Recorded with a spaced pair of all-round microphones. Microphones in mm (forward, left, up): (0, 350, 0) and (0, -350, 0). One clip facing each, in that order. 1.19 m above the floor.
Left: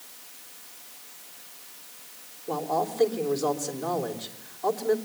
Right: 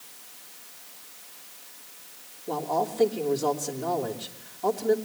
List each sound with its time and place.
2.5 s a man speaking: 55° right (ahead or behind), 3 m